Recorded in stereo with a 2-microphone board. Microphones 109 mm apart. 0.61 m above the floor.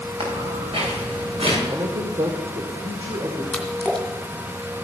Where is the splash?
5° left (ahead or behind), 2.5 m.